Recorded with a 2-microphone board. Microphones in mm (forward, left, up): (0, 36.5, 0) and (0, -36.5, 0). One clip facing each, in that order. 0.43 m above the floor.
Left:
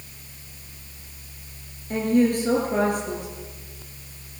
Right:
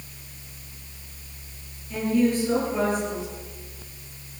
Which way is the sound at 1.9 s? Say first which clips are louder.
Left 2 dB; 55° left (ahead or behind).